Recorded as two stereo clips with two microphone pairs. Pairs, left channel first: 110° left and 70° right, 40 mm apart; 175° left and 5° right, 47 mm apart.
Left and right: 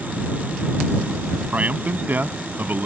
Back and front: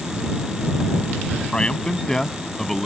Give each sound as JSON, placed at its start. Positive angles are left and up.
{"t": 1.5, "sound": "a man speaking", "azimuth_deg": -115}